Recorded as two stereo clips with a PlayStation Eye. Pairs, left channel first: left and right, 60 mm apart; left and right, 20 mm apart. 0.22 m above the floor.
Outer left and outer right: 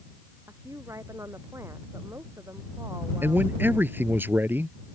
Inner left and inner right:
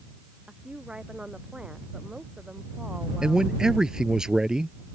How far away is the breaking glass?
No breaking glass in this recording.